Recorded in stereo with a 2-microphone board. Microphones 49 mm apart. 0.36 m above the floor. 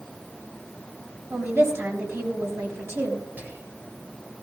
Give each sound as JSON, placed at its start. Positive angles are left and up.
{"t": 1.3, "sound": "a woman speaking", "side_deg": -70, "distance_m": 3.5}
{"t": 3.4, "sound": "whispering", "side_deg": -35, "distance_m": 1.2}